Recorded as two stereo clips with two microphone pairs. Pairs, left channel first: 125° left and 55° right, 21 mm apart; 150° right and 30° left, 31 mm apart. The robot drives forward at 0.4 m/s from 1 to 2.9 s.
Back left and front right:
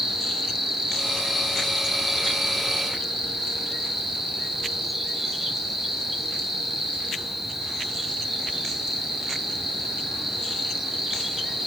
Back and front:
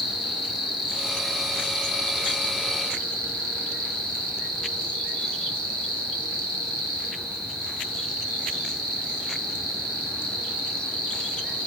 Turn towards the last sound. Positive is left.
turn(degrees=-140)